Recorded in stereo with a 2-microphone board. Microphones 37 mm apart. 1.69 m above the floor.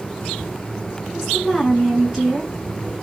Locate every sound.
1.1 s a woman speaking: 5° right (ahead or behind), 1.5 m